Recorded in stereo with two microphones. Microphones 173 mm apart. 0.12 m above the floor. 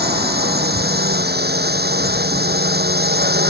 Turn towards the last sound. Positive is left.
turn(degrees=-70)  # may be behind; listen again after turning